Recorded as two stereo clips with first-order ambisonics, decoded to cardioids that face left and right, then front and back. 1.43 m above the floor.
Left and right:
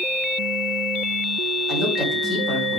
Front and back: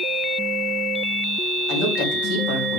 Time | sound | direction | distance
1.7 | a woman speaking | 35° left | 4.5 m